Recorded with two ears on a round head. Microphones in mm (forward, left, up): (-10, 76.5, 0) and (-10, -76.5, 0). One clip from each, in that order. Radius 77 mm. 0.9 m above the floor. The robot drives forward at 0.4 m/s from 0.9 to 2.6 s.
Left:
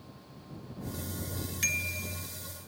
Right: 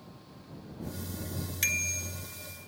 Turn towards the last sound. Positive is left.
turn(degrees=-30)  # may be behind; listen again after turning